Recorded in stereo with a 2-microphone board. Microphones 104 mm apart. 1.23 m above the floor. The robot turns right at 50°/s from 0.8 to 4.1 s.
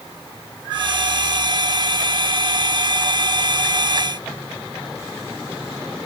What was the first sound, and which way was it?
Only background noise.